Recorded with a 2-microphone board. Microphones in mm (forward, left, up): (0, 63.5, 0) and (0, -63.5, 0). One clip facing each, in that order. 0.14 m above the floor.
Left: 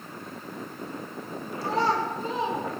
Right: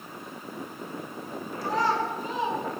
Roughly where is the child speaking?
Left.